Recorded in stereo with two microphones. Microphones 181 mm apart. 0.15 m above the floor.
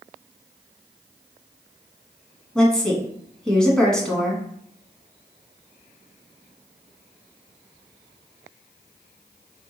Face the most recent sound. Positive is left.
turn(degrees=5)  # may be behind; listen again after turning